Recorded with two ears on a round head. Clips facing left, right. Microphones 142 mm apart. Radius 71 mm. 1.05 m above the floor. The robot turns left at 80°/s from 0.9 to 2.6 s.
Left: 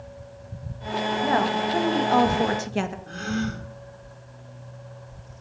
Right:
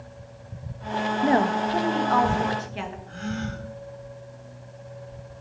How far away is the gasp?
About 2.5 m.